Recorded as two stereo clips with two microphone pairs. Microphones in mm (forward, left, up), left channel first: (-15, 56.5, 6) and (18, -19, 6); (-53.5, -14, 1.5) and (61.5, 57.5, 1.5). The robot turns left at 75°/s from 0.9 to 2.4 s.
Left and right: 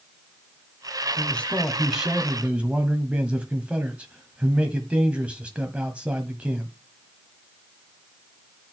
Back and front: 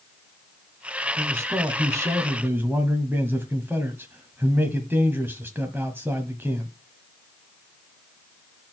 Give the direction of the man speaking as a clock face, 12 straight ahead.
9 o'clock.